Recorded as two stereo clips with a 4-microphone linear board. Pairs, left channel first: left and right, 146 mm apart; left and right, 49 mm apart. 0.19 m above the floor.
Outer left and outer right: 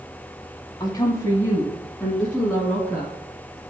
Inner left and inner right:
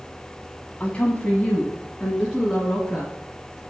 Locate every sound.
0.8 s a woman speaking: 30° left (ahead or behind), 1.1 m; by 3.6 s 10° right (ahead or behind), 2.5 m